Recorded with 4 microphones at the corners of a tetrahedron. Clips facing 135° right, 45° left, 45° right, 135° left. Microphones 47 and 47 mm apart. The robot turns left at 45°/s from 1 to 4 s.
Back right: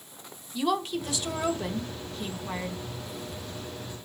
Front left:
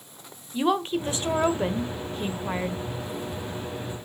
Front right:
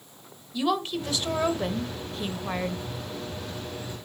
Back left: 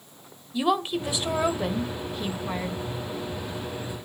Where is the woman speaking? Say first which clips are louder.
Front left 4 dB, back left 2 dB; 75° left, 1.2 m; by 2.8 s 5° right, 1.2 m.